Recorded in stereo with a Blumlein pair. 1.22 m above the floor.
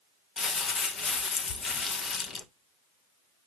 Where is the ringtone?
I don't hear a ringtone.